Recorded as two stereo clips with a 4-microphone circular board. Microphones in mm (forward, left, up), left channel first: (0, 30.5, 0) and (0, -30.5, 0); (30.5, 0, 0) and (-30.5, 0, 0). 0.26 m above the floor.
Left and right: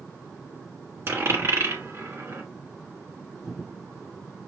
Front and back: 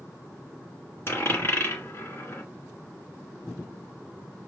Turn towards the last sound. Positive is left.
turn(degrees=-45)